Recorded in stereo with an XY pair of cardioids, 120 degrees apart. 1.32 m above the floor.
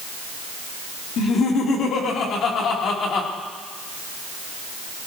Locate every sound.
1.2 s laughter: 60° left, 3.5 m